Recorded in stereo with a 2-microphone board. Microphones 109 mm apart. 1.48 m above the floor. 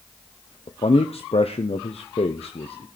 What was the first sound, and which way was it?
A man speaking, 65° left (ahead or behind).